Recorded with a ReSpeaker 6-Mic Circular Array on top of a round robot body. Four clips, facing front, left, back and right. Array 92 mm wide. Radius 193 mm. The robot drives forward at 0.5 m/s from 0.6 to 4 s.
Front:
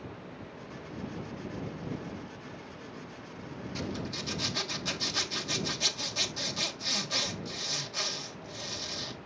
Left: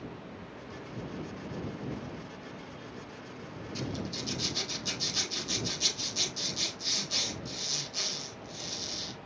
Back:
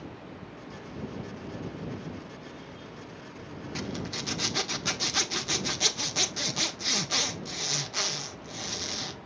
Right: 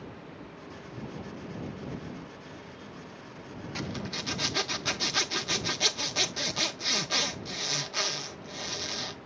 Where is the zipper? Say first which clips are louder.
Even, back 2 dB; 125° right, 1.5 m.